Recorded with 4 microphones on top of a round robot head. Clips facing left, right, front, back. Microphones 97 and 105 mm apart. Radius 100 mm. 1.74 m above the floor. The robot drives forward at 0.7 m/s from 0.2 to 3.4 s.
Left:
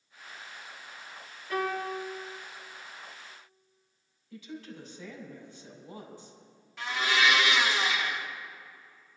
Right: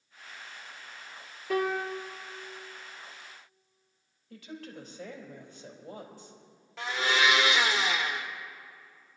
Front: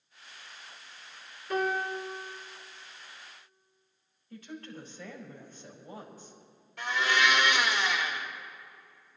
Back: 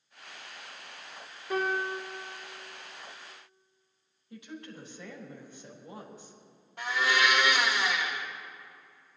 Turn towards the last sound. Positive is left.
turn(degrees=-110)